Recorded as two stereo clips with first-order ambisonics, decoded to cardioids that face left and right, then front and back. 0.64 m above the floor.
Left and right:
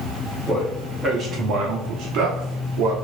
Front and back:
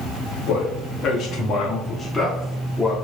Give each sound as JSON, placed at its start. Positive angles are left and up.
{"t": 0.5, "sound": "a man speaking", "azimuth_deg": -10, "distance_m": 1.0}